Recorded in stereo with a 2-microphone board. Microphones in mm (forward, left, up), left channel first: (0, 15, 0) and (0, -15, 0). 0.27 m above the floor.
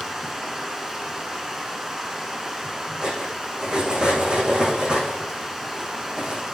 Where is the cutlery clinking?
30° right (ahead or behind), 7.5 m.